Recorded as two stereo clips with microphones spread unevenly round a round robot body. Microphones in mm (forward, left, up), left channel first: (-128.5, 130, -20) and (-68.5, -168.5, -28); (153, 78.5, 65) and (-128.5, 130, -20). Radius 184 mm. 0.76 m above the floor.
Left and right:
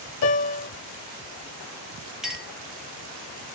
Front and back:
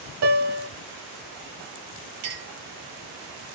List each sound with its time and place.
0.2 s a piano: 120° left, 0.7 m
2.2 s a clink: 165° right, 1.7 m